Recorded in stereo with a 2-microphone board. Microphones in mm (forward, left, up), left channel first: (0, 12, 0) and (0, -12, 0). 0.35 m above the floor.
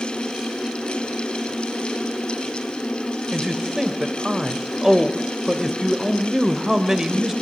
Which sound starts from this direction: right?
A man speaking, at 3.3 s.